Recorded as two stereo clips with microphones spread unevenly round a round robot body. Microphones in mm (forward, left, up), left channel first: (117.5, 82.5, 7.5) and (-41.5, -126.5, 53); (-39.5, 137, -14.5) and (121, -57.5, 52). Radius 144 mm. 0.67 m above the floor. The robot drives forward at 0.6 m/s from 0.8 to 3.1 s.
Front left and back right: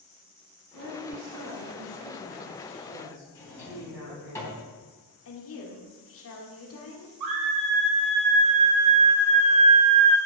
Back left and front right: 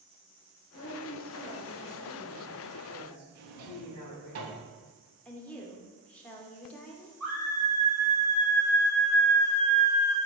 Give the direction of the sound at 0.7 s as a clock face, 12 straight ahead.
6 o'clock.